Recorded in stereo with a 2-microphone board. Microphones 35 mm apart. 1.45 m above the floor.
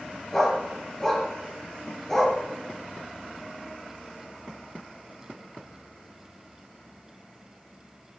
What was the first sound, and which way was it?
A dog barking, 10° left (ahead or behind).